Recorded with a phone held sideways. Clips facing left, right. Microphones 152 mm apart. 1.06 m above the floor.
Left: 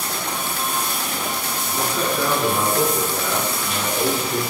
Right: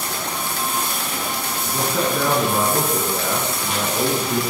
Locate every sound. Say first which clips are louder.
1.7 s a man speaking: right 2 dB; 65° right (ahead or behind), 10 m